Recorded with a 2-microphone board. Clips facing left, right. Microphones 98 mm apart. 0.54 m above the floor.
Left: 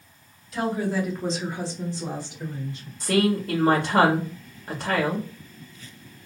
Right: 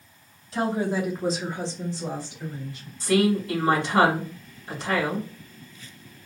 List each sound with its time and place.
0.5 s a woman speaking: 35° right (ahead or behind), 0.9 m; by 2.9 s 30° left (ahead or behind), 1.5 m
3.0 s a woman speaking: 55° left (ahead or behind), 1.5 m